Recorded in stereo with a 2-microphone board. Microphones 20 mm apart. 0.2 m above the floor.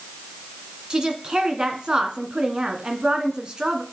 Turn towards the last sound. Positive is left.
turn(degrees=-45)  # may be behind; listen again after turning